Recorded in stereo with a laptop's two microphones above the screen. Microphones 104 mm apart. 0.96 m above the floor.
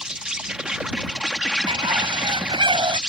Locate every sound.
0.0 s an insect: 10° right (ahead or behind)
1.7 s a bird: 55° right (ahead or behind)